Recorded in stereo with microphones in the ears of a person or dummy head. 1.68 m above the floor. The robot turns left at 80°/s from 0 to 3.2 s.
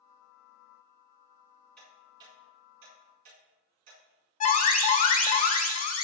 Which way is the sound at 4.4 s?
40° left (ahead or behind).